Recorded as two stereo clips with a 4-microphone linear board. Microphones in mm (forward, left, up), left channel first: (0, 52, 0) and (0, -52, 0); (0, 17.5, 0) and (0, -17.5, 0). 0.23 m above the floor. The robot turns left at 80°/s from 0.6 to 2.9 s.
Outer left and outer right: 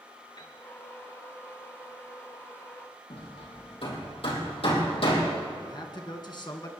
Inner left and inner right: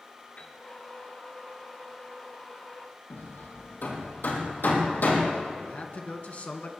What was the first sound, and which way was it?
A piano, 50° left (ahead or behind).